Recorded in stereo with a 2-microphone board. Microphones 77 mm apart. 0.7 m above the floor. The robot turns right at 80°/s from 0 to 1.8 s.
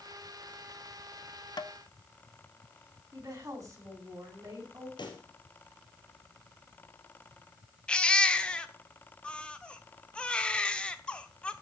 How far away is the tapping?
About 0.7 m.